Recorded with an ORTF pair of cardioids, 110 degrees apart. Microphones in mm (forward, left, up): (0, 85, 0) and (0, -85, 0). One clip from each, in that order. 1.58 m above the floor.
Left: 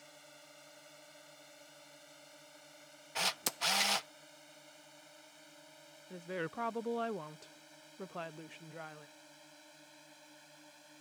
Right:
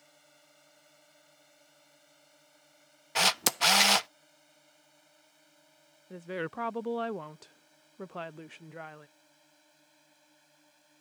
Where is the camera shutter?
40° right.